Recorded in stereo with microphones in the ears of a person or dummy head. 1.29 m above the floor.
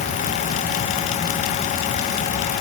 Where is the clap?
I don't hear a clap.